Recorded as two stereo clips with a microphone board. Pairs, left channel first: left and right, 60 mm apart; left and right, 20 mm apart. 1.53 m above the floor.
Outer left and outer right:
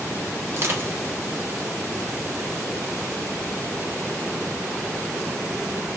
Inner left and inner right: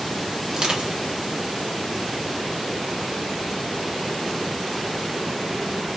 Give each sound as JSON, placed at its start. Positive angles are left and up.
{"t": 0.5, "sound": "crushing", "side_deg": -40, "distance_m": 0.9}